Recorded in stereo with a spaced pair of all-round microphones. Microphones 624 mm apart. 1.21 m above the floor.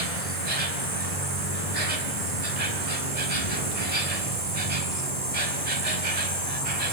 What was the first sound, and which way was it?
An insect, 70° right (ahead or behind).